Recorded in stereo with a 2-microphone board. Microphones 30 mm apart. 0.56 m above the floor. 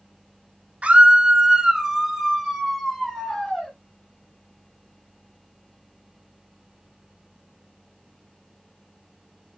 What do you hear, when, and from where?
0.8 s a scream: 45° right (ahead or behind), 0.8 m; by 3.7 s 5° left (ahead or behind), 2.5 m